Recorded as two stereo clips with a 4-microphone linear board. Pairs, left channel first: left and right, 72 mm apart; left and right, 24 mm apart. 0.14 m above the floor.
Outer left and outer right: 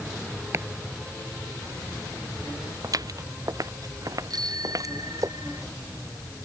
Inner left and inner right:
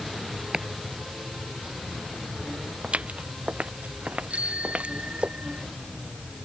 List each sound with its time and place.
0.5 s chopping: 40° right (ahead or behind)
2.8 s footsteps: 60° right (ahead or behind); by 5.3 s 50° right (ahead or behind)
4.3 s a bicycle bell: 65° right (ahead or behind)